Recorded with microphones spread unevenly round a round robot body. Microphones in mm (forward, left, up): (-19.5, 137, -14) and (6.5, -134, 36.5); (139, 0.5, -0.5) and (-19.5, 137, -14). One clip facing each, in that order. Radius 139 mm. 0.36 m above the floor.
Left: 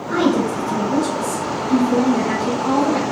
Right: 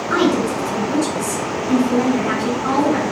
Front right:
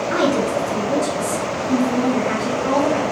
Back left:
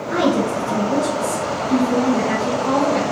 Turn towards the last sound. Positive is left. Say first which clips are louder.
# even, back left 1 dB
turn(degrees=-110)